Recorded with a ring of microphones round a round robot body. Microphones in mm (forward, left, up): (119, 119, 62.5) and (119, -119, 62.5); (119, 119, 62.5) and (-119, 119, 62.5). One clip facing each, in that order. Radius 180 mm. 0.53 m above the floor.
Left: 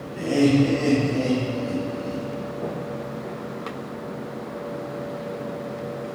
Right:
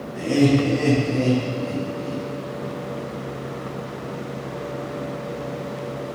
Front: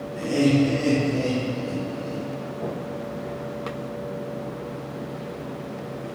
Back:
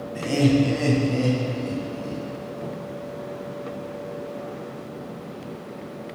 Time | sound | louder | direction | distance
0.1 | laughter | even, even | 165° right | 3 m